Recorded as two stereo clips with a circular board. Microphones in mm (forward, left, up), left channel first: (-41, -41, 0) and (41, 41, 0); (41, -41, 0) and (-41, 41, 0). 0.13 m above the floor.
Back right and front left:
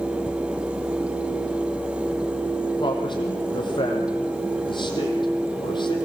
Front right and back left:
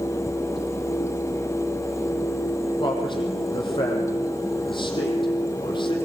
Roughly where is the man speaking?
Right.